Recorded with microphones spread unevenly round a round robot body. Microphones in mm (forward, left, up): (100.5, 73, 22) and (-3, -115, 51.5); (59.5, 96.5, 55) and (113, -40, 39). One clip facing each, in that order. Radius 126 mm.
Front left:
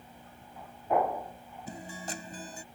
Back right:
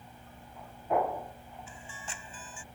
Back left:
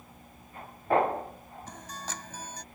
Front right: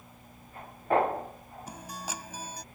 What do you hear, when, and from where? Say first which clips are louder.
1.7 s a guitar: front left 7 dB, front right 2 dB; 10° left